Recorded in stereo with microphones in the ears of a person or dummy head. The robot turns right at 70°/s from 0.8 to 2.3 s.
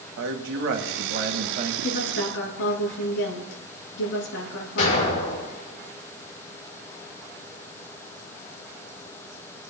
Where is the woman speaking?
40° left, 3 m; by 5.2 s 75° left, 3 m.